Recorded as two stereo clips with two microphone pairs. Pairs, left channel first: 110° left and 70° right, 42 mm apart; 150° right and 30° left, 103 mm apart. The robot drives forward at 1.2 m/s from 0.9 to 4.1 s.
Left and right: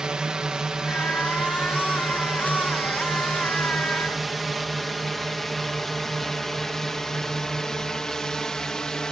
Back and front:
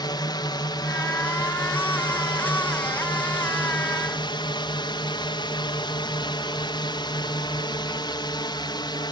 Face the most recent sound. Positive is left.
turn(degrees=180)